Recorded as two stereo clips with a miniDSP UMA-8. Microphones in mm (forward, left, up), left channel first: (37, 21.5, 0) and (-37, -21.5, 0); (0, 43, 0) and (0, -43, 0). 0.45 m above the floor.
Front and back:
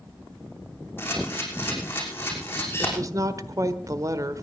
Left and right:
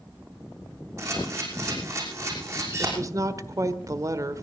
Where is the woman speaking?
120° right, 1.2 m.